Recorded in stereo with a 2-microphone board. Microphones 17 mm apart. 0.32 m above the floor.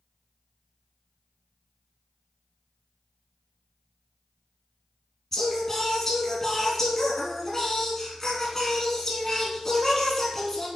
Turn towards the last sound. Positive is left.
turn(degrees=25)  # may be behind; listen again after turning